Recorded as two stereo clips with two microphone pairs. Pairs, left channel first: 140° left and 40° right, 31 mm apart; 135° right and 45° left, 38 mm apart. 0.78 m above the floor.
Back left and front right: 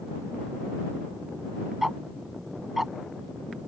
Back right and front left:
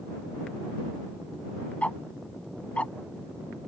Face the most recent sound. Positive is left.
turn(degrees=-120)